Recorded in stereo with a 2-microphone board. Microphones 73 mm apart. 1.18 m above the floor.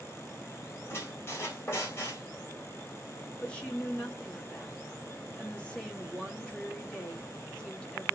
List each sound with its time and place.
0.9 s a squeak: 35° left (ahead or behind), 2.5 m
3.4 s a woman speaking: 15° left (ahead or behind), 2.5 m